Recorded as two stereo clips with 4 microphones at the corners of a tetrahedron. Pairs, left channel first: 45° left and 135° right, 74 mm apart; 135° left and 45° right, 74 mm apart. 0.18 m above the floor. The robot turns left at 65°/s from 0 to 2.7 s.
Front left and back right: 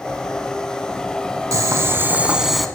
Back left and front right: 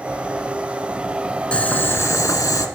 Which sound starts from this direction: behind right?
Boiling, at 1.5 s.